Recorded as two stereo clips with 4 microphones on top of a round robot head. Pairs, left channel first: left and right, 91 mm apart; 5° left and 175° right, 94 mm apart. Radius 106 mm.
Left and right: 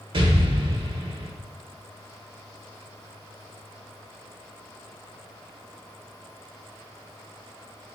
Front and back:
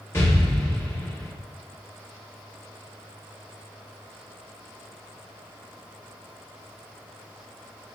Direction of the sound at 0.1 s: 60° right.